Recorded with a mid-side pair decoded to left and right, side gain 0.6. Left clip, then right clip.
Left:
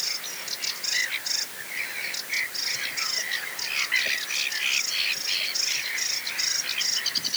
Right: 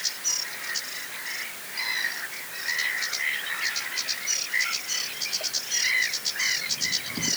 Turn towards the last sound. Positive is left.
No sound to turn to.